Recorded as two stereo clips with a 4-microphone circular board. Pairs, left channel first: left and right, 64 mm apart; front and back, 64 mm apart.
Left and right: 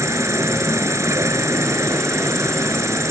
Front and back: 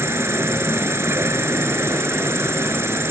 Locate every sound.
0.0 s an insect: 130° right